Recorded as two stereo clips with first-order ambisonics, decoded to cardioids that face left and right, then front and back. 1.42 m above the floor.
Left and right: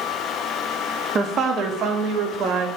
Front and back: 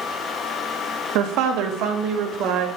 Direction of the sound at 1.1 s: 155° right.